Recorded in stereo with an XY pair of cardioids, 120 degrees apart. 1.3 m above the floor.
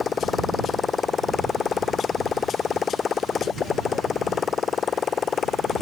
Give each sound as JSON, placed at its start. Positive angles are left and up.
{"t": 0.0, "sound": "a motorcycle", "azimuth_deg": 35}